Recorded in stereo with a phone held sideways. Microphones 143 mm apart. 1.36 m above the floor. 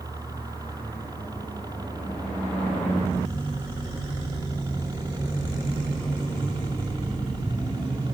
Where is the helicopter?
25° right (ahead or behind); by 8.2 s 30° right (ahead or behind).